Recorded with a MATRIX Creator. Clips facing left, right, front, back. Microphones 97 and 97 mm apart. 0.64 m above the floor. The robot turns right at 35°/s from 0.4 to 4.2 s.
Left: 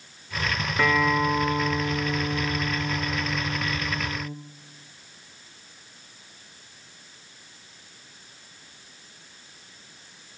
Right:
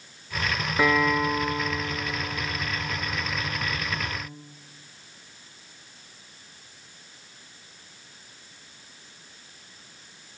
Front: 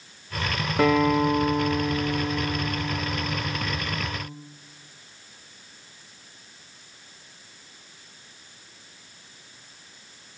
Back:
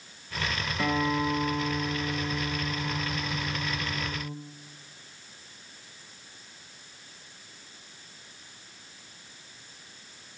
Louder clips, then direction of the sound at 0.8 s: Even, front 8 dB; 10° right.